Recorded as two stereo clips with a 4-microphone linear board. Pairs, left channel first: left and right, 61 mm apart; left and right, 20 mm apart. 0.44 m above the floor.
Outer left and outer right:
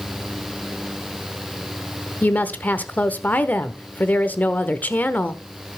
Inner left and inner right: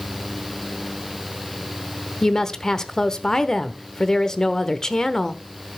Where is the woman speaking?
30° left (ahead or behind), 1.0 m.